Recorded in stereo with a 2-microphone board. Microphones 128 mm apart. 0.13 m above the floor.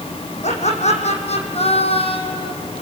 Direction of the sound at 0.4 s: 60° left (ahead or behind).